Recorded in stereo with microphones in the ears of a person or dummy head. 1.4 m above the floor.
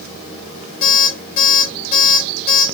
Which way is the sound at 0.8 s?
30° left (ahead or behind).